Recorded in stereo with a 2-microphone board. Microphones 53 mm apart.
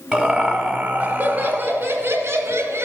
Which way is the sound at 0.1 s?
Centre (ahead or behind).